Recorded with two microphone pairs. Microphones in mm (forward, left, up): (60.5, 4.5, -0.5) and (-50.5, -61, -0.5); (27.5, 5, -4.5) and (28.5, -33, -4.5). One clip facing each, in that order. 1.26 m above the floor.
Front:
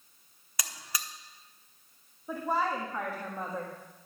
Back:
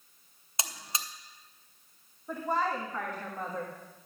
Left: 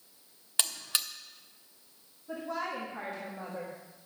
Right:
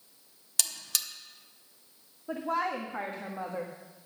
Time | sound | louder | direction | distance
0.6 | a buzzer | back 2 dB, left 2 dB | 150° left | 0.7 m
2.3 | a woman speaking | even, right 5 dB | 50° right | 1.5 m